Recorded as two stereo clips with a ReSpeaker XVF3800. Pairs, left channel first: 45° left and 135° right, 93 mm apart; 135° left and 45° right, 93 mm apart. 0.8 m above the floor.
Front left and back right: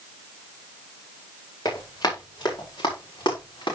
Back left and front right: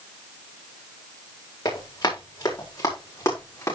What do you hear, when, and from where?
1.6 s running footsteps: 90° left, 9 m; by 3.8 s 80° left, 6.5 m